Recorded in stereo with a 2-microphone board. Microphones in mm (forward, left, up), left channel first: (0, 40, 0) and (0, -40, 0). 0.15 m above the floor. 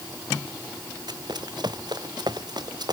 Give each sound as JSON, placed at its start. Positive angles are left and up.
{"t": 1.1, "sound": "running footsteps", "side_deg": -60}